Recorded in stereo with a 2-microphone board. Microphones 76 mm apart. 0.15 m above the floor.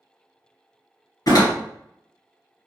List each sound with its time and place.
1.3 s a door slam: 55° left (ahead or behind), 1.8 m